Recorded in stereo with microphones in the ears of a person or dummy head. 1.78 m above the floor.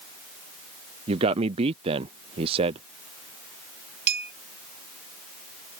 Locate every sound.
1.1 s a man speaking: 35° right (ahead or behind)
4.1 s a clink: 60° right (ahead or behind)